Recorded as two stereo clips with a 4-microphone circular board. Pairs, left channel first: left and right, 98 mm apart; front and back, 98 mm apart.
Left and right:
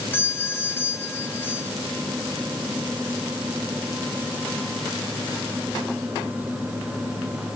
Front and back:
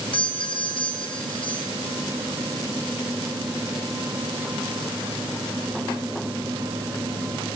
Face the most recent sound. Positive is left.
turn(degrees=25)